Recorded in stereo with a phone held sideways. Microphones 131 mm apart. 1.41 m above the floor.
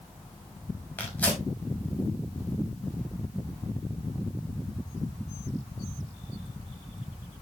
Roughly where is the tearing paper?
Centre.